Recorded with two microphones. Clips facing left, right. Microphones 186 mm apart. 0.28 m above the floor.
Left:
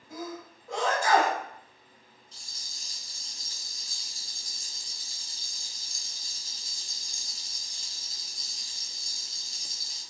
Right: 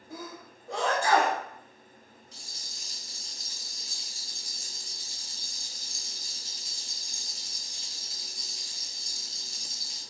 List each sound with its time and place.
0.1 s a sneeze: 30° right (ahead or behind), 1.1 m
2.3 s a rattle: 35° left (ahead or behind), 1.3 m